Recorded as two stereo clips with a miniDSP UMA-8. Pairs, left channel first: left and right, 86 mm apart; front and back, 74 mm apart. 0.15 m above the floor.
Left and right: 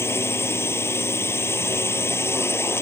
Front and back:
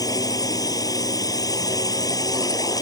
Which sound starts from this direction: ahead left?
A drone, at 0.0 s.